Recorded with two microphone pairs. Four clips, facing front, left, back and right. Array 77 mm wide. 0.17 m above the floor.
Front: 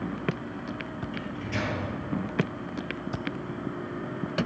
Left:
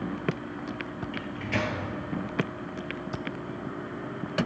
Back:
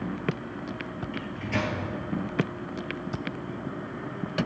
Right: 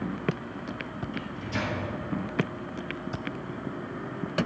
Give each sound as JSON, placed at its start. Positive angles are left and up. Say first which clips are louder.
{"t": 1.1, "sound": "a microwave", "louder": "left 3 dB, back 3 dB", "azimuth_deg": 105, "distance_m": 2.5}